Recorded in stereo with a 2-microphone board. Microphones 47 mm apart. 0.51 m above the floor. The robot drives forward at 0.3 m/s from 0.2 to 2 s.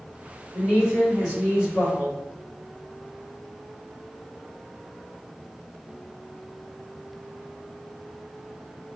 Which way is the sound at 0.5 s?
20° right (ahead or behind).